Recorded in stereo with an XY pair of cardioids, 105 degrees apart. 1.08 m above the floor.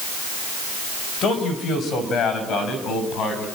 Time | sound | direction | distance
1.2 | a man speaking | 65° left | 5 m